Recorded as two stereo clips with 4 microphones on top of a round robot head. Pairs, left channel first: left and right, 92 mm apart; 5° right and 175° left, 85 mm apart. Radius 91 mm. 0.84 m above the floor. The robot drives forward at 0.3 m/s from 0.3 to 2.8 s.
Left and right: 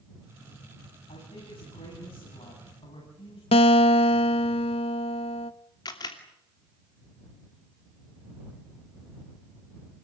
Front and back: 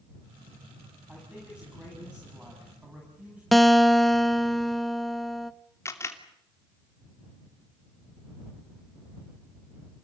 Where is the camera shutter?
50° left, 3 m.